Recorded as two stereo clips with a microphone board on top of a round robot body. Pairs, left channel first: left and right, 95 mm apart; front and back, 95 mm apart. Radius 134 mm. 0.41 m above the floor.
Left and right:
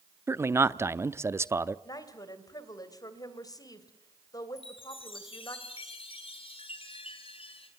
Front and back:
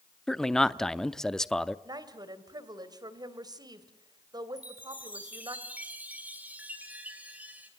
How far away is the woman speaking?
About 3 m.